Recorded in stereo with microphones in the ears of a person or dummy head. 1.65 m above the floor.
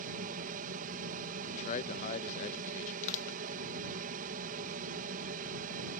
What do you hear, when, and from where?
0.0 s an aircraft: 45° right (ahead or behind)
1.5 s a man speaking: 40° left (ahead or behind)
3.0 s crushing: 40° left (ahead or behind)